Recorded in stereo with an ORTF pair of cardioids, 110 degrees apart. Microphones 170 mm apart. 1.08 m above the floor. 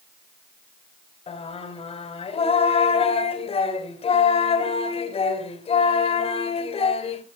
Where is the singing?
35° left, 3.5 m.